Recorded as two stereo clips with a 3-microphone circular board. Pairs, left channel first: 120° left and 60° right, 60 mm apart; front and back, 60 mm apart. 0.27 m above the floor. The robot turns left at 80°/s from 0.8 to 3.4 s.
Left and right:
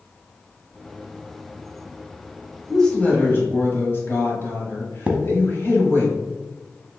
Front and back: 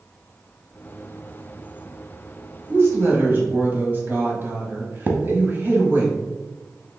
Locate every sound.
2.7 s a woman speaking: 160° right, 1.6 m; by 6.1 s 145° left, 1.6 m
5.1 s a thud: 125° right, 0.8 m